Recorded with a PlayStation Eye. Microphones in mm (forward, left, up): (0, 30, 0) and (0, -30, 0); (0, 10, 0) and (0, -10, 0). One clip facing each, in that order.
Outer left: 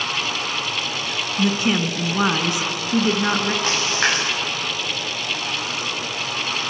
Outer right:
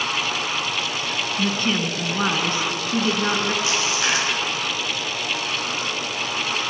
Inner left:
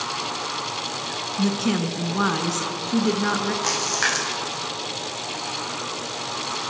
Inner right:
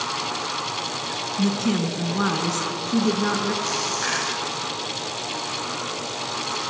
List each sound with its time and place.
1.4 s a woman speaking: 15° left (ahead or behind), 1.5 m
3.6 s a splash: 50° left (ahead or behind), 6.5 m